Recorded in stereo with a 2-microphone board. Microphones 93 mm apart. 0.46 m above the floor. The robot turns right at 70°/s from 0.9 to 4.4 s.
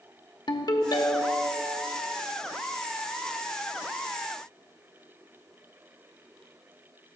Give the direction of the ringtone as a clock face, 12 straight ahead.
9 o'clock.